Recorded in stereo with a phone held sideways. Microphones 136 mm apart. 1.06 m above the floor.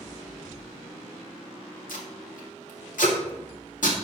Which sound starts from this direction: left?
Tape being pulled, at 1.9 s.